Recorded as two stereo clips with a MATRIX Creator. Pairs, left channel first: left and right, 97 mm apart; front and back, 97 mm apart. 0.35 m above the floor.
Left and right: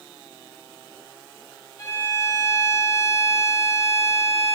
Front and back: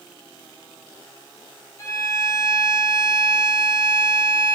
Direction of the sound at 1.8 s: 50° left.